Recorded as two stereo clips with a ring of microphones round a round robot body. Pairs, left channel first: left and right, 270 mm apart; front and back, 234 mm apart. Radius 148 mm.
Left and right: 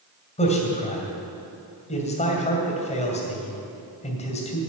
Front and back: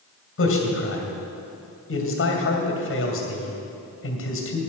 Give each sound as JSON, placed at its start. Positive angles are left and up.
{"t": 0.4, "sound": "a man speaking", "azimuth_deg": 25, "distance_m": 2.5}